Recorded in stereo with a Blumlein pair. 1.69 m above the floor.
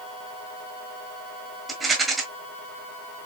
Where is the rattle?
10° right, 1.5 m.